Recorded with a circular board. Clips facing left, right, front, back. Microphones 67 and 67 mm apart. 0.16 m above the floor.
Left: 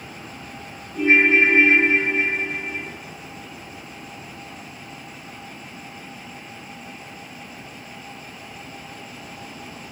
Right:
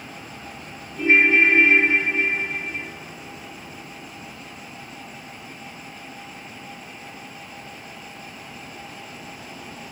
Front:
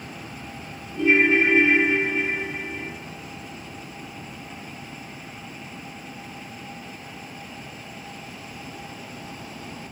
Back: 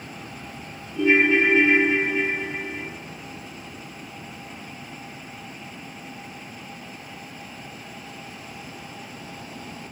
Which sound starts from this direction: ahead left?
A ringtone, at 0.9 s.